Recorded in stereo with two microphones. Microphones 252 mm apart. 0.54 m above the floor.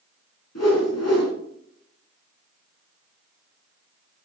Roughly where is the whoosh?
Left.